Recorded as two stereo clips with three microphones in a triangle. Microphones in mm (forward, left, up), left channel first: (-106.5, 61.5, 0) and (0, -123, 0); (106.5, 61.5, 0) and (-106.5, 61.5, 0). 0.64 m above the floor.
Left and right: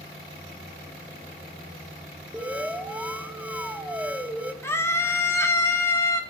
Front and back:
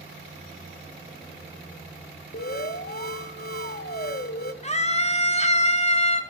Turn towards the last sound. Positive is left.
turn(degrees=45)